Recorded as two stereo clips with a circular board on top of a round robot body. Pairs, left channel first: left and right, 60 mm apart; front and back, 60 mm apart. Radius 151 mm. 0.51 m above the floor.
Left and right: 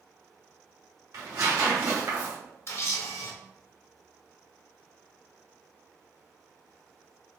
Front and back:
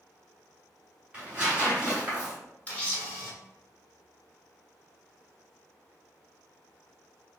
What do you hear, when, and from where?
1.1 s tearing paper: 110° right, 1.7 m
2.7 s a camera shutter: 65° left, 1.6 m